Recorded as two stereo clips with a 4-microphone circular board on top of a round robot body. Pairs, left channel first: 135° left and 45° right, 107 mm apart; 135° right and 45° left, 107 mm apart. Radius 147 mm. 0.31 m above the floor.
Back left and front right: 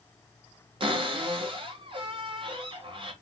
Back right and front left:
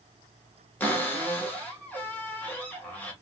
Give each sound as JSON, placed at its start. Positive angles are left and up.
{"t": 0.8, "sound": "a cupboard door", "azimuth_deg": -65, "distance_m": 1.4}